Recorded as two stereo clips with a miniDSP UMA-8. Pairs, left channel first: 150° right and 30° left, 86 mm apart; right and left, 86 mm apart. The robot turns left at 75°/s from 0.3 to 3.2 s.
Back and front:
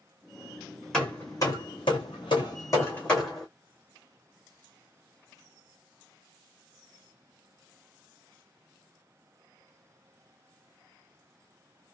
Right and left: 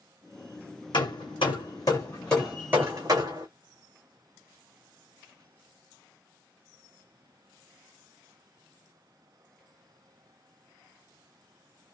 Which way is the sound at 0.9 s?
65° right.